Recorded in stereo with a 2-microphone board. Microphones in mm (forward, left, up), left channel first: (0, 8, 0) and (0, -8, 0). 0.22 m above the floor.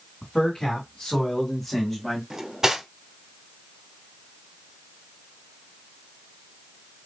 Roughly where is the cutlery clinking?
Right.